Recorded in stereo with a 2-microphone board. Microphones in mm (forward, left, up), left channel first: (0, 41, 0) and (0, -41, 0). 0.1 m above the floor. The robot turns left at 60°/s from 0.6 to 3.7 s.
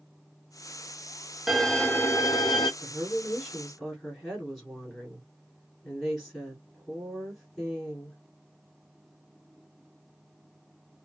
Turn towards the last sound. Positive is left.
turn(degrees=5)  # may be behind; listen again after turning